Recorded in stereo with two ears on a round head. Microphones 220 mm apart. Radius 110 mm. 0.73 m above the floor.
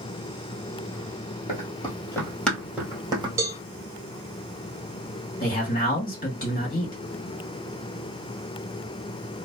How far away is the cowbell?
About 0.7 m.